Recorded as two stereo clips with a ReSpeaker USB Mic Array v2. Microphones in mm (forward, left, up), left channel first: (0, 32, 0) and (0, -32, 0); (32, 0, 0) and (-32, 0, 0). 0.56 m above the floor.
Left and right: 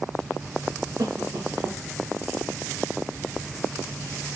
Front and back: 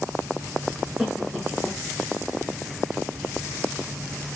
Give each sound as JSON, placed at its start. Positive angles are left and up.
{"t": 1.0, "sound": "a cough", "azimuth_deg": -95, "distance_m": 7.0}